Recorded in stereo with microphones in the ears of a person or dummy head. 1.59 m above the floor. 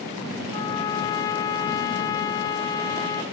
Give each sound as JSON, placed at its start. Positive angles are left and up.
{"t": 0.5, "sound": "a trumpet", "side_deg": 25, "distance_m": 0.6}